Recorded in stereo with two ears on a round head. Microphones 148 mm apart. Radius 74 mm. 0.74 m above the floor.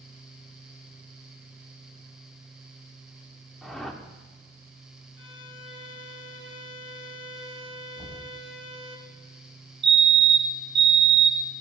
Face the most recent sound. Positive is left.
turn(degrees=-35)  # may be behind; listen again after turning